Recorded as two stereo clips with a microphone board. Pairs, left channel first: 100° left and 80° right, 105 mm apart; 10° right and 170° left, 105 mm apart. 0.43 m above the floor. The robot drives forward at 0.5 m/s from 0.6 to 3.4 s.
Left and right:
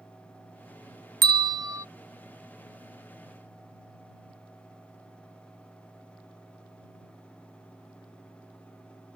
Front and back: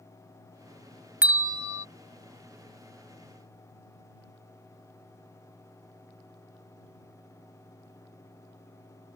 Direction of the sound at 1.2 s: 115° right.